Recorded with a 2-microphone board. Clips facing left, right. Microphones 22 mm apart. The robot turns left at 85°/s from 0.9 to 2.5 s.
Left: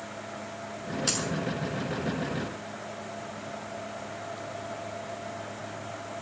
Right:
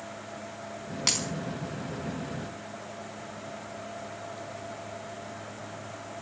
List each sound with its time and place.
1.1 s a dropped coin: 75° right (ahead or behind), 4 m